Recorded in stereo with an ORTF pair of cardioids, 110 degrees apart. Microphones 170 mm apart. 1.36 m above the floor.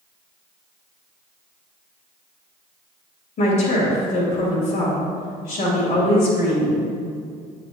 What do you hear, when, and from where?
3.4 s a woman speaking: 60° left, 2.5 m